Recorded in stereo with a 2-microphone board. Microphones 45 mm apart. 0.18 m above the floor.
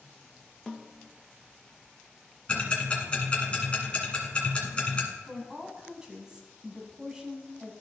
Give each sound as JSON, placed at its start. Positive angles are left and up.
{"t": 0.7, "sound": "a snare drum", "side_deg": 5, "distance_m": 0.6}
{"t": 2.5, "sound": "ticking", "side_deg": 25, "distance_m": 1.8}
{"t": 5.3, "sound": "a woman speaking", "side_deg": -15, "distance_m": 1.1}